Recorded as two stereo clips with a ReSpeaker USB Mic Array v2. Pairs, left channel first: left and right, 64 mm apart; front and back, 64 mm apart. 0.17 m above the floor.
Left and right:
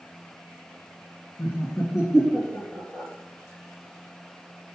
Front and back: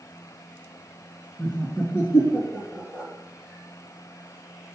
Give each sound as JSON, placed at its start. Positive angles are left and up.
{"t": 1.4, "sound": "laughter", "azimuth_deg": 60, "distance_m": 2.5}